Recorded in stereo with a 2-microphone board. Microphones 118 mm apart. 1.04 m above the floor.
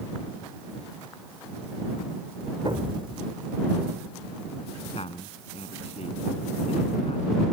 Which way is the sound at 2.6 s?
45° right (ahead or behind).